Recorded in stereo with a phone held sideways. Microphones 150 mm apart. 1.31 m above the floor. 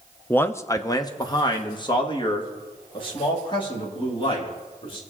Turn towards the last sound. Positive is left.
turn(degrees=35)  # may be behind; listen again after turning